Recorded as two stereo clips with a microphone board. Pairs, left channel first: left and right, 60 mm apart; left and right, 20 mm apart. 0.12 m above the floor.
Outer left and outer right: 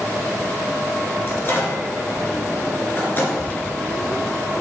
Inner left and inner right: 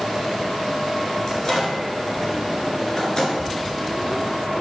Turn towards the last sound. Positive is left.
turn(degrees=35)  # may be behind; listen again after turning